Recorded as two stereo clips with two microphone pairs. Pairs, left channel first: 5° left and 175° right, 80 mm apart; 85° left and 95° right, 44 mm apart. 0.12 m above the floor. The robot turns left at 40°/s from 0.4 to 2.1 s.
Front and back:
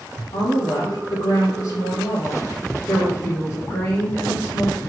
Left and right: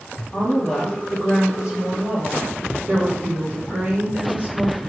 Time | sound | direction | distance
0.3 | a woman speaking | 25° left | 3 m